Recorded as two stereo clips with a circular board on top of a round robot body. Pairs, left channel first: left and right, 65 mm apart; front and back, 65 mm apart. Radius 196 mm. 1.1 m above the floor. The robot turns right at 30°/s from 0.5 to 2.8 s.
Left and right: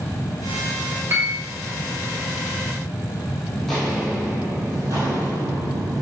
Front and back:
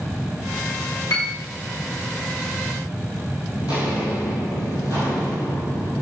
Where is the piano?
40° right, 0.9 m; by 1.4 s 30° right, 0.9 m.